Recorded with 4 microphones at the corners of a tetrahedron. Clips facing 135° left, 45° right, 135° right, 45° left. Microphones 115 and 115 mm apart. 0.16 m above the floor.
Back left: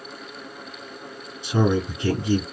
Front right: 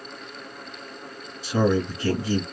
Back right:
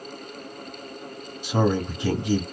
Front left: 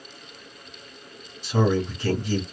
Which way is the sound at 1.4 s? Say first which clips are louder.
Even, even; 175° left.